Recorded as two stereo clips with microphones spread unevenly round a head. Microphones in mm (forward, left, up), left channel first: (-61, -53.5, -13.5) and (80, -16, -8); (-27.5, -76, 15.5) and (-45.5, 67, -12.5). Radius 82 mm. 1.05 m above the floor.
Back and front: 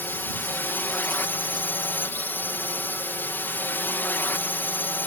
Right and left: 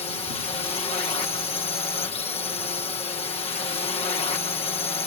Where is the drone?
100° right.